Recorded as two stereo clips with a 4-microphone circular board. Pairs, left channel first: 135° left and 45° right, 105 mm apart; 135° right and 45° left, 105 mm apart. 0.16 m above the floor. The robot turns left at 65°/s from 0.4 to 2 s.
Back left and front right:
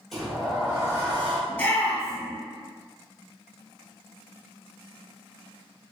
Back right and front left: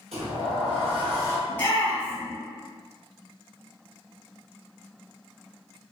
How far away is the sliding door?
About 1.9 m.